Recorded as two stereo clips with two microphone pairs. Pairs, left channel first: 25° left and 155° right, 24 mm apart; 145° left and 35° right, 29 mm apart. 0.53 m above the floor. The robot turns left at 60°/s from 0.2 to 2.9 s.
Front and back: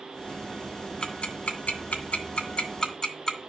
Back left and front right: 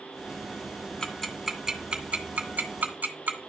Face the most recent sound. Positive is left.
turn(degrees=-35)